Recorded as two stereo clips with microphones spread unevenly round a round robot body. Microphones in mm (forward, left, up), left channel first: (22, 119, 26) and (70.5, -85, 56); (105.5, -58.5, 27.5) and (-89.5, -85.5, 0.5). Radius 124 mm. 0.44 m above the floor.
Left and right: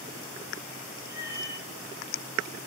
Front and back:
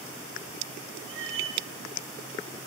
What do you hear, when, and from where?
1.1 s a cat meowing: 155° right, 3 m